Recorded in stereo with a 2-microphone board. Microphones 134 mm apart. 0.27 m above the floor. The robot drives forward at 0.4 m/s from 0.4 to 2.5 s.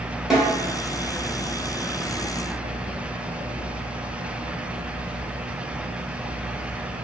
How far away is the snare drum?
About 1.0 m.